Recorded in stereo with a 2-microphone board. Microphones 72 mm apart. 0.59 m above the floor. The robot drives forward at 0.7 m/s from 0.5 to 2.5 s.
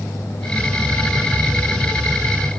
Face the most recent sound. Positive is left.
No sound to turn to.